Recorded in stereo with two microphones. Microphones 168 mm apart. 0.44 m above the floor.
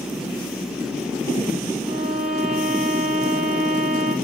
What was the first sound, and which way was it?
A violin, centre (ahead or behind).